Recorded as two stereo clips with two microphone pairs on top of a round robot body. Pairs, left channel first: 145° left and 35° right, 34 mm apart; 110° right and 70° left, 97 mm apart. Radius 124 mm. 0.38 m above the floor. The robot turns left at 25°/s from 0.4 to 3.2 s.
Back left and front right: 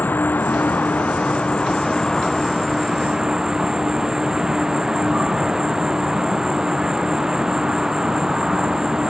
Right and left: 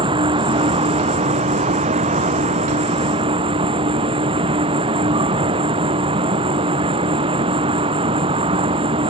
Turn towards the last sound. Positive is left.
turn(degrees=35)